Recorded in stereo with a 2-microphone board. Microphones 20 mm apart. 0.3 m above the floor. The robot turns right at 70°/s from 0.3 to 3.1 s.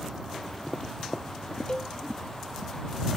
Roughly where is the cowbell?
Left.